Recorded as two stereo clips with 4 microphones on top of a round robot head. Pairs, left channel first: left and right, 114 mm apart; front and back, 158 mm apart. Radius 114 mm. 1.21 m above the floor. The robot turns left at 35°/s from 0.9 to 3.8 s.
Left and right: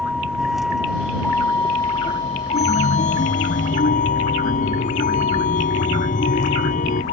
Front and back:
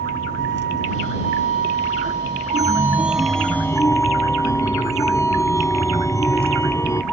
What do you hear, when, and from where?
0.0 s a vehicle: 175° right; by 7.1 s 80° left
2.5 s a chime: 115° left; by 7.0 s 70° left